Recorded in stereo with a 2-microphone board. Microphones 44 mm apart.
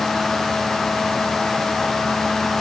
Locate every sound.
Only background noise.